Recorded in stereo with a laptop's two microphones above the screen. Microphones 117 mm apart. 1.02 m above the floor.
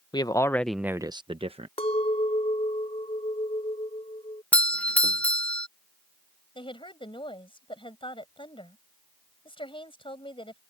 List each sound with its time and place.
0.1 s a man speaking: 40° left (ahead or behind); by 1.7 s 60° right (ahead or behind)
1.8 s a clink: 60° left (ahead or behind)
4.5 s a doorbell: 10° left (ahead or behind)
6.5 s a woman speaking: 50° left (ahead or behind)